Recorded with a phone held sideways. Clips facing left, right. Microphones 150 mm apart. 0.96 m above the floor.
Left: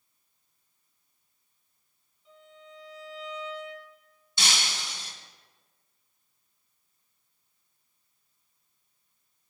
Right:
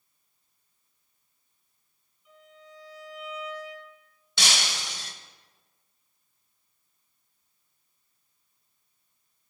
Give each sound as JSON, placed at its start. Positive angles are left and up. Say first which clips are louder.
{"t": 2.2, "sound": "a violin", "louder": "left 1 dB", "side_deg": 25, "distance_m": 4.5}
{"t": 4.4, "sound": "breaking glass", "louder": "right 2 dB", "side_deg": -75, "distance_m": 1.7}